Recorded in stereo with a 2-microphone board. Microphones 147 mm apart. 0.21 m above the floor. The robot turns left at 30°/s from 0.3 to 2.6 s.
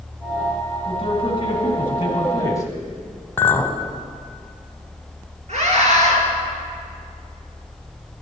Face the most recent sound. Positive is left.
turn(degrees=-50)  # may be behind; listen again after turning